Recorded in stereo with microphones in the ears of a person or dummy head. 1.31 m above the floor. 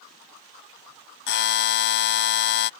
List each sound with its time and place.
1.3 s a buzzer: 60° left (ahead or behind)